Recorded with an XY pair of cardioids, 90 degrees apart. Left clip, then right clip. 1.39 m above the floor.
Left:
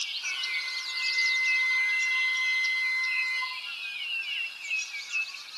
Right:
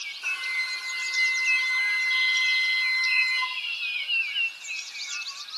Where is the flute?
55° right, 3.5 m.